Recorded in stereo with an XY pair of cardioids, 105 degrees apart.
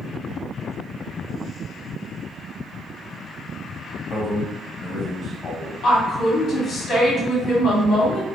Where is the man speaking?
40° left, 1.6 m.